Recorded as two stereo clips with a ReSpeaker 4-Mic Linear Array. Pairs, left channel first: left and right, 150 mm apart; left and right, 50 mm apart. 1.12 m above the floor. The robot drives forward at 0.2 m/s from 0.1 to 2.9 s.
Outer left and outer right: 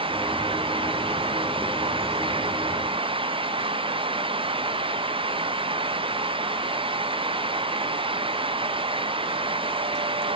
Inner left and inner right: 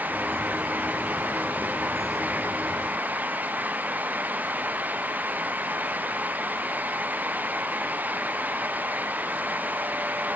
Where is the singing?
I don't hear singing.